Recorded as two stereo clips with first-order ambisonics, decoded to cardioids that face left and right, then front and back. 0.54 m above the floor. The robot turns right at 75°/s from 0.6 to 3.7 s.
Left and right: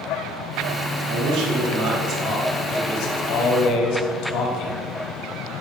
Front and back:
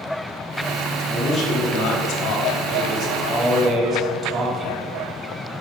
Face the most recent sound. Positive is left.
turn(degrees=105)